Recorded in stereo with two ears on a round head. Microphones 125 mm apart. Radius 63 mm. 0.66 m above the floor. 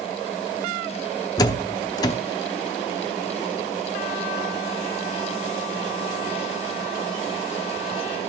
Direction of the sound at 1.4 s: 25° left (ahead or behind).